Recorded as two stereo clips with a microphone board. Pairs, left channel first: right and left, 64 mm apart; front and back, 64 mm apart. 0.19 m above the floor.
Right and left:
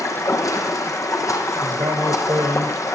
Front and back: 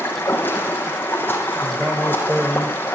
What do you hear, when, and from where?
0.0 s running water: 55° right, 4.5 m
1.6 s a man speaking: 105° left, 3.5 m